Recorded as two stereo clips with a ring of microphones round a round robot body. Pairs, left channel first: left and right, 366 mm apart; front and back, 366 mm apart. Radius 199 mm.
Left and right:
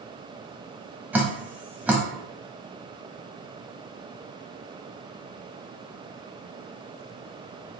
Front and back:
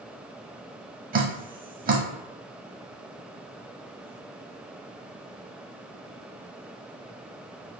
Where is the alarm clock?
I don't hear an alarm clock.